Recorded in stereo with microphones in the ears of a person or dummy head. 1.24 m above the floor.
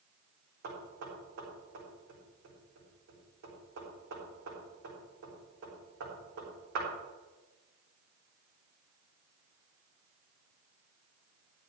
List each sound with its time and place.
0.6 s knocking: 60° right (ahead or behind), 3.5 m